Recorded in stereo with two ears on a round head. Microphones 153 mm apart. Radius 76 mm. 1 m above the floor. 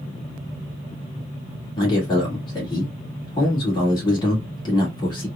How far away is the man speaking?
About 1.8 m.